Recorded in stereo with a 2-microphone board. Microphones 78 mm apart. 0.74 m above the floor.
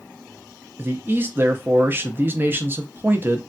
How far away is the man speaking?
About 0.5 m.